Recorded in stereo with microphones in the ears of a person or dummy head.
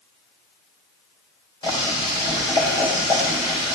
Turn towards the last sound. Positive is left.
turn(degrees=20)  # may be behind; listen again after turning